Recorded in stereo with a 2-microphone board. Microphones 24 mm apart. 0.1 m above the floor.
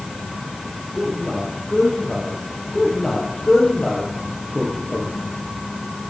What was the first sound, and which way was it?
A man speaking, 30° left (ahead or behind).